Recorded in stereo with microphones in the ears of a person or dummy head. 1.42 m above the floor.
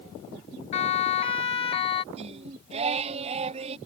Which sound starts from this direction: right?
Singing, at 2.1 s.